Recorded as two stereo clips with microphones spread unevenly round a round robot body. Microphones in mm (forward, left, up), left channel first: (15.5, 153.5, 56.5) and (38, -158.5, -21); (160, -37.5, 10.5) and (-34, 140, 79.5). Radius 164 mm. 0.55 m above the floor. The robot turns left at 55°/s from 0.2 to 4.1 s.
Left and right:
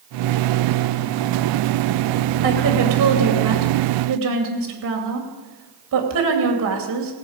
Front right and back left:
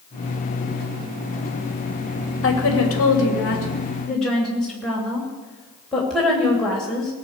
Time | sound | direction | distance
2.4 | a woman speaking | 35° right | 3 m